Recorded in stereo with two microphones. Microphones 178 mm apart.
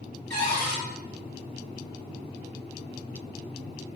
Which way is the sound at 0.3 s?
65° right (ahead or behind).